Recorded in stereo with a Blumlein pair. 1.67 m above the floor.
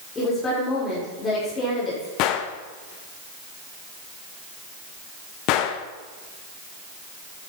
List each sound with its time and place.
0.1 s a woman speaking: 20° left, 6 m
2.2 s a gunshot: 40° left, 1.0 m